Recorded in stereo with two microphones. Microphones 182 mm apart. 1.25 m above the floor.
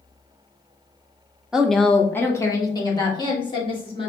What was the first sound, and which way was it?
A woman speaking, 5° right (ahead or behind).